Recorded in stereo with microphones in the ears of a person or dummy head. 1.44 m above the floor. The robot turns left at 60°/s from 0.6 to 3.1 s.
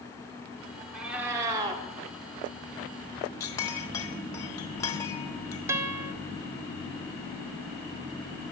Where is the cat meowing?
5° right, 1.1 m; by 1.8 s 60° right, 1.1 m.